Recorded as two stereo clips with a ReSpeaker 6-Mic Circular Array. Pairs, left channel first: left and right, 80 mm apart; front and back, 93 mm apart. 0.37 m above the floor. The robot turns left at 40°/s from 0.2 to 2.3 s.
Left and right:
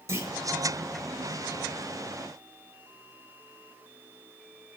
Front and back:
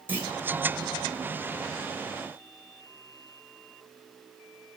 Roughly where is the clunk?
Behind right.